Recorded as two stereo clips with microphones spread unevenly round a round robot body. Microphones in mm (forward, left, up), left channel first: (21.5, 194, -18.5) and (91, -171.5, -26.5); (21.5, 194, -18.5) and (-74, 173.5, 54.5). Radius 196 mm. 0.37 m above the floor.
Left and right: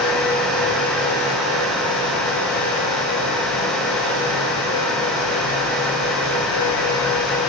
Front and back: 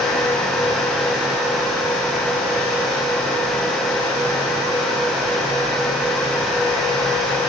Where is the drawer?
I don't hear a drawer.